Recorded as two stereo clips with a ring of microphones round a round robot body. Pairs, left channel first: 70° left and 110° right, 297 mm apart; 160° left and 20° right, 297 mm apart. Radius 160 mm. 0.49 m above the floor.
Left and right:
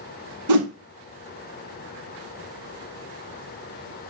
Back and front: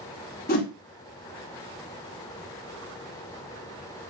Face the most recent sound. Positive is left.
turn(degrees=-140)